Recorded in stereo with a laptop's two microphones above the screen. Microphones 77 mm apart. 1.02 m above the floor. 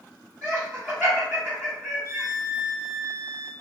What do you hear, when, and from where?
0.4 s laughter: 20° right (ahead or behind), 1.9 m
2.0 s a violin: 55° right (ahead or behind), 0.7 m